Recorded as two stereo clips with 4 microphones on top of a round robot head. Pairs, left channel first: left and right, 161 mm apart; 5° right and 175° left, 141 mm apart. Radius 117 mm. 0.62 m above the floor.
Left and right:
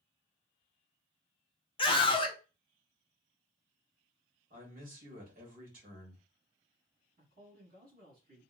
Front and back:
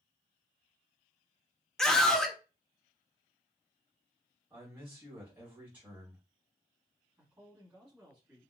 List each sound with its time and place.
1.8 s a scream: 75° left, 0.7 m
4.5 s a man speaking: 110° right, 1.4 m
7.2 s a man speaking: 110° right, 1.9 m